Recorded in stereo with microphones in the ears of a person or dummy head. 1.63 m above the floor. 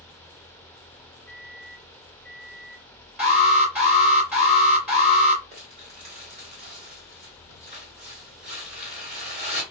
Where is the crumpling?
35° right (ahead or behind), 1.7 m.